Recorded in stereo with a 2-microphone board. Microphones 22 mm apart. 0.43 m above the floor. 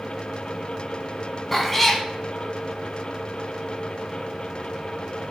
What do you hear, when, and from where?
1.5 s a cat meowing: 10° left (ahead or behind), 0.9 m